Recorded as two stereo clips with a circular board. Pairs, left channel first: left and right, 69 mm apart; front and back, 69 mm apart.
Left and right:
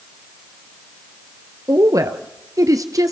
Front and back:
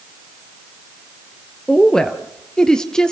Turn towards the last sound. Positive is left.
turn(degrees=-80)